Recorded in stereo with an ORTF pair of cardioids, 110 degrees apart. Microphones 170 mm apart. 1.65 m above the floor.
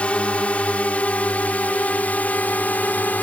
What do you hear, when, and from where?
0.0 s a drone: 5° left; by 3.2 s 10° left